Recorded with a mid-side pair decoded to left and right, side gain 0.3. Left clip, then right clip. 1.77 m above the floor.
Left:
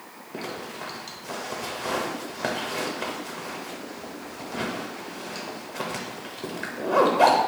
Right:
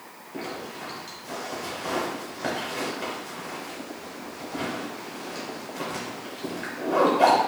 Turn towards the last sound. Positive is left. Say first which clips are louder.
# even
turn(degrees=60)